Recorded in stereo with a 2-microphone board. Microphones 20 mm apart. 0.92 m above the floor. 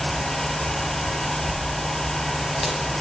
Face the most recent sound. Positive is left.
turn(degrees=-15)  # may be behind; listen again after turning